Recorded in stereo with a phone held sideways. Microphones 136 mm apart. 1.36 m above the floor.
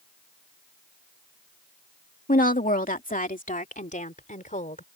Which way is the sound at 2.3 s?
85° left.